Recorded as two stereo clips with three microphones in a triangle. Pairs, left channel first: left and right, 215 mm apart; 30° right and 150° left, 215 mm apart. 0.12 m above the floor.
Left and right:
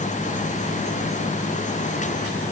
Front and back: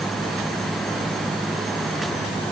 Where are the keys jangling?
I don't hear keys jangling.